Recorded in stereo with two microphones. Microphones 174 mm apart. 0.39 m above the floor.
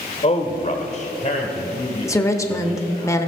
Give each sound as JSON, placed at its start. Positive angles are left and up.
{"t": 0.2, "sound": "a man speaking", "side_deg": 35, "distance_m": 1.1}
{"t": 2.1, "sound": "a woman speaking", "side_deg": 15, "distance_m": 0.9}